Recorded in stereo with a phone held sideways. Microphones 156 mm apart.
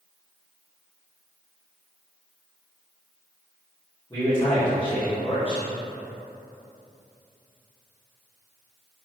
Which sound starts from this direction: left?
A man speaking, at 4.1 s.